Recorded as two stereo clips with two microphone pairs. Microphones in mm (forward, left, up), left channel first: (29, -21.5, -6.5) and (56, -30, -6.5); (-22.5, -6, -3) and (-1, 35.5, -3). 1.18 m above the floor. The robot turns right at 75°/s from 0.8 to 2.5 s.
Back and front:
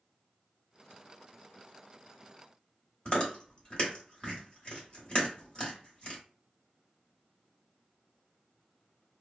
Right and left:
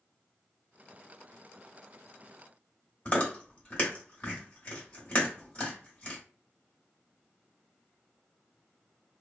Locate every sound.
3.0 s chewing: 155° right, 1.3 m